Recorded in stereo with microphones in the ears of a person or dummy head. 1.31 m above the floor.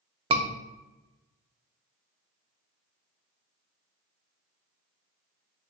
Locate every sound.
0.3 s a scream: 25° right (ahead or behind), 0.5 m